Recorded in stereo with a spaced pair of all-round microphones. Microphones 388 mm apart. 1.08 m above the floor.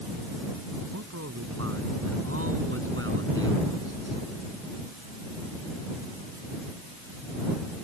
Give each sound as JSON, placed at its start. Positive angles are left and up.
{"t": 0.9, "sound": "a man speaking", "side_deg": -40}